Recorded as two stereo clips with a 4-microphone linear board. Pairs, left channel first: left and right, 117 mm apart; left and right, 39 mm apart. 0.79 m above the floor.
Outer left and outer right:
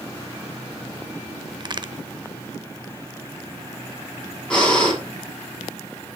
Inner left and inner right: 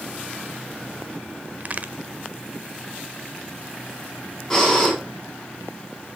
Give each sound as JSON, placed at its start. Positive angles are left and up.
{"t": 1.6, "sound": "a crack", "side_deg": -40, "distance_m": 0.7}
{"t": 4.5, "sound": "breathing", "side_deg": 10, "distance_m": 7.0}